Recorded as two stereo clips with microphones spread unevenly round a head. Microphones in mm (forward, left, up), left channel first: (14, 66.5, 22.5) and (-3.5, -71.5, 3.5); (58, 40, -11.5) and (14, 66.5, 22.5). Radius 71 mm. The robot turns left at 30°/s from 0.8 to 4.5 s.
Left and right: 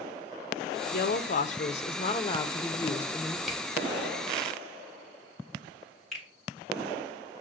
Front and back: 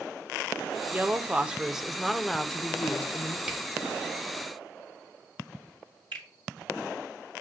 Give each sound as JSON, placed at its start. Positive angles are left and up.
{"t": 0.9, "sound": "a woman speaking", "azimuth_deg": 65, "distance_m": 0.6}
{"t": 3.5, "sound": "a camera shutter", "azimuth_deg": 170, "distance_m": 0.7}
{"t": 6.1, "sound": "a finger snap", "azimuth_deg": 175, "distance_m": 1.5}